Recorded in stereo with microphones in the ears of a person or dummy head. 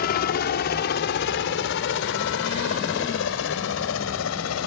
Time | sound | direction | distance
0.0 | a helicopter | 50° left (ahead or behind) | ?